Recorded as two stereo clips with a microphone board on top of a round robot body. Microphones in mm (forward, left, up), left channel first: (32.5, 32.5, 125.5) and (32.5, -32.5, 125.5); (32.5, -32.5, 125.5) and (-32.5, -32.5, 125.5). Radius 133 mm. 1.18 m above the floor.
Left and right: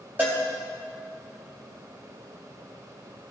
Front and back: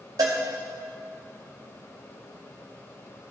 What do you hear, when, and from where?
0.2 s a cowbell: 160° right, 1.2 m